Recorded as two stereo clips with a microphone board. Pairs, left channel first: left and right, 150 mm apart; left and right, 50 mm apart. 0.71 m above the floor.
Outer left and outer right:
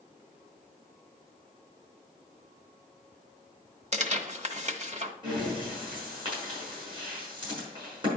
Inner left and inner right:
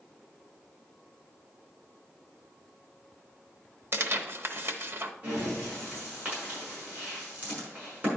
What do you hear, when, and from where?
3.9 s tearing paper: 50° right (ahead or behind), 1.1 m
5.2 s breathing: 35° right (ahead or behind), 5 m